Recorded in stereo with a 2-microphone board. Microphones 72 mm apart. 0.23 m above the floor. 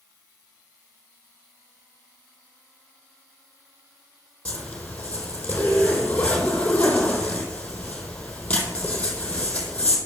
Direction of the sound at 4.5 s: 20° left (ahead or behind).